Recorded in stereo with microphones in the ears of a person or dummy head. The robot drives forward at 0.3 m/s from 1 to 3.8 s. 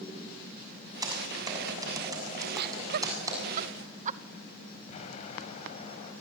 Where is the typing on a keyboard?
20° right (ahead or behind), 6 m; by 3.4 s 15° right (ahead or behind), 7 m.